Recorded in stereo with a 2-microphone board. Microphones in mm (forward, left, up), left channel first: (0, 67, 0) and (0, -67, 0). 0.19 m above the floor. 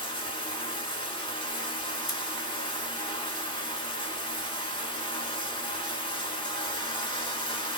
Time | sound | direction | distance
0.0 | running water | 40° left (ahead or behind) | 0.8 m
2.1 | scissors | 30° left (ahead or behind) | 1.0 m